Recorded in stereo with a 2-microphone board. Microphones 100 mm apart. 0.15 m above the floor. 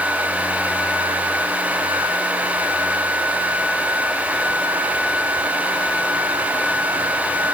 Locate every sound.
Only background noise.